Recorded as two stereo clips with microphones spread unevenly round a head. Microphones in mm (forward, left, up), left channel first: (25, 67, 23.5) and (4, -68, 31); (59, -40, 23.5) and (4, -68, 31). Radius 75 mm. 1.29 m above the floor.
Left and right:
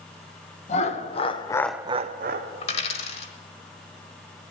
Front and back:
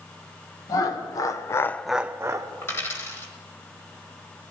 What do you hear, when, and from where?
0.7 s laughter: 45° left, 1.6 m; by 2.5 s 105° right, 1.0 m
2.6 s a dropped coin: 85° left, 1.2 m